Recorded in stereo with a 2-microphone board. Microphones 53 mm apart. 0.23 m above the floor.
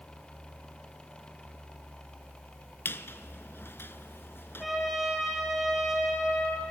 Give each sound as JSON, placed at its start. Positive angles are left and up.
{"t": 2.9, "sound": "a squeak", "side_deg": 45, "distance_m": 0.8}
{"t": 4.6, "sound": "a trumpet", "side_deg": 0, "distance_m": 4.5}